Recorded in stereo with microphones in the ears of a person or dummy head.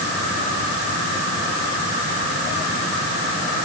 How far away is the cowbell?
No cowbell in this recording.